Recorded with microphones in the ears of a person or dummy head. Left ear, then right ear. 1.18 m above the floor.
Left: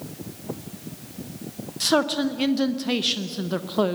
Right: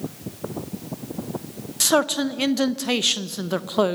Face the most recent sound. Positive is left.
turn(degrees=-20)  # may be behind; listen again after turning